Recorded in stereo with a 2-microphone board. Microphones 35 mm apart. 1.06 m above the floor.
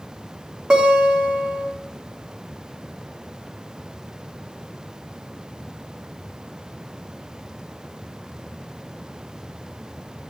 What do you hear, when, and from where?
0.7 s a guitar: 25° right (ahead or behind), 1.6 m